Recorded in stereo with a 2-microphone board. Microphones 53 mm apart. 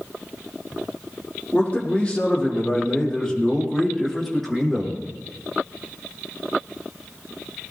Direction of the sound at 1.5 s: 25° left (ahead or behind).